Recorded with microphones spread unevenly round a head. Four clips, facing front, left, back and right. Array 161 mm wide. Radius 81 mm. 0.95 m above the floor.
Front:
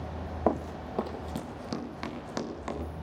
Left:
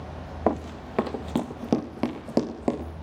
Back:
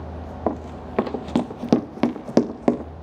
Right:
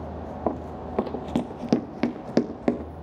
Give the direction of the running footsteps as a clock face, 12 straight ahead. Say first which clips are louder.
Left 3 dB, back 2 dB; 9 o'clock.